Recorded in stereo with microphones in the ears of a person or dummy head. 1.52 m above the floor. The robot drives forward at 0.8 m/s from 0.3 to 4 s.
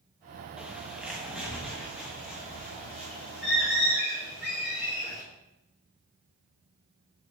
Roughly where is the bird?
Centre.